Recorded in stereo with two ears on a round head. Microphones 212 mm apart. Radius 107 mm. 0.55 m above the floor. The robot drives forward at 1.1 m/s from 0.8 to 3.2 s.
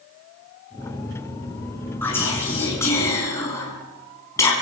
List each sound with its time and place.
2.0 s whispering: 10° left (ahead or behind), 5.5 m; by 4.5 s 15° left (ahead or behind), 4 m